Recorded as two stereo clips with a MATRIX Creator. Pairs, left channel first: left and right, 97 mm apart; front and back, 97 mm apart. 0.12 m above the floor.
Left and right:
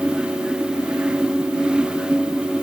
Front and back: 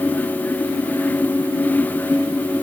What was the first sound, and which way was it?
Only background noise.